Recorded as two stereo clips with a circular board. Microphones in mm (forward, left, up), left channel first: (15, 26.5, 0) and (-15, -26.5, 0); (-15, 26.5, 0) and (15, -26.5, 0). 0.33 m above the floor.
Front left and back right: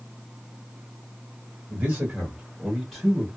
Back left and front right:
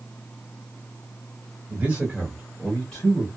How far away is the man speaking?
About 1.6 m.